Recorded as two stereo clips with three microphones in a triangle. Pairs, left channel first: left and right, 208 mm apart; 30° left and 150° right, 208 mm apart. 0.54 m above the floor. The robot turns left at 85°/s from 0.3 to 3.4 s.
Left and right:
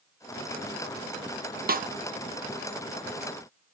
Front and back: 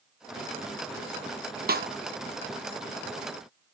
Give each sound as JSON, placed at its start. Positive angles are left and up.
{"t": 1.7, "sound": "a snare drum", "azimuth_deg": -120, "distance_m": 0.6}